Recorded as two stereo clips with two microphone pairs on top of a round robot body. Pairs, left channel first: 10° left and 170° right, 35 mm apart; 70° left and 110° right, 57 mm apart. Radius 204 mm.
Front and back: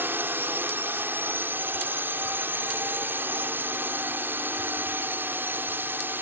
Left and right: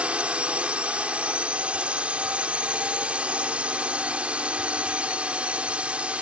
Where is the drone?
175° right.